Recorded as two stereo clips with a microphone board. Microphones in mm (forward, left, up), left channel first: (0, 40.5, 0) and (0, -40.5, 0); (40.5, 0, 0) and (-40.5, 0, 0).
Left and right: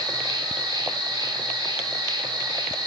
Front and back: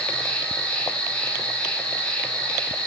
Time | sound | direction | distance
0.0 | an insect | 75° right | 0.8 m